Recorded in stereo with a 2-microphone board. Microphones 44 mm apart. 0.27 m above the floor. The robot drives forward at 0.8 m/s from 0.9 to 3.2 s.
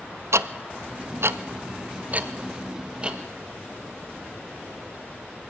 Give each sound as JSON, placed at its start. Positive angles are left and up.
{"t": 0.3, "sound": "ticking", "side_deg": -80, "distance_m": 0.7}